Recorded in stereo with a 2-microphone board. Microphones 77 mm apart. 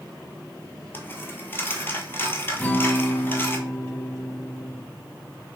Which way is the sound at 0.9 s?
30° left (ahead or behind).